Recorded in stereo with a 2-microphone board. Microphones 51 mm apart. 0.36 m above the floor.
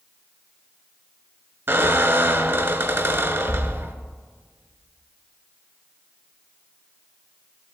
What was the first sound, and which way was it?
A squeak, 60° right (ahead or behind).